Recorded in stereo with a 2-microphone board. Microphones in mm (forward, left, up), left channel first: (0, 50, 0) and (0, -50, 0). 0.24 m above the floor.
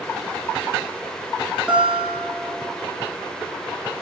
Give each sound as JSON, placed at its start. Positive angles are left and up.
{"t": 1.7, "sound": "a guitar", "side_deg": -10, "distance_m": 1.6}